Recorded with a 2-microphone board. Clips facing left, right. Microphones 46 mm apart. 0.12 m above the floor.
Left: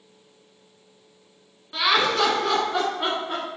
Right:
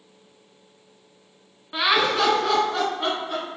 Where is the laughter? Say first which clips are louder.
Even; 20° right (ahead or behind), 1.6 m; by 3.4 s 25° left (ahead or behind), 1.9 m.